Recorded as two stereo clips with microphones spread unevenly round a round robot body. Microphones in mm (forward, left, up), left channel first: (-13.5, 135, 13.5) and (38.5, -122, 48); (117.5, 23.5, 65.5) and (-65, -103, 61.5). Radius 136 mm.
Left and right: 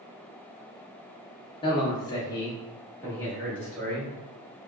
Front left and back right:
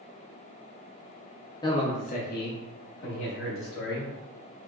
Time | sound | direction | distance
1.6 | a man speaking | 85° left | 0.8 m